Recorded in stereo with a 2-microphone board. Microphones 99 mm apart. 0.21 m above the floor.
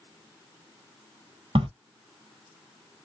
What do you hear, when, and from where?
1.6 s a crack: 85° right, 0.8 m